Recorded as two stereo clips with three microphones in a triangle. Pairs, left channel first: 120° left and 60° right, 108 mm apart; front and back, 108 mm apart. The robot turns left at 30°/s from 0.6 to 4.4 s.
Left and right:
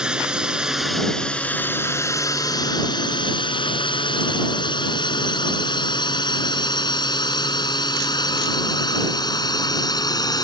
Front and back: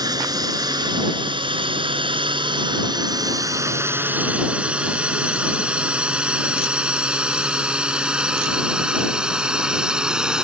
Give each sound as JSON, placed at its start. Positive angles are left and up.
{"t": 0.0, "sound": "a drone", "azimuth_deg": -140}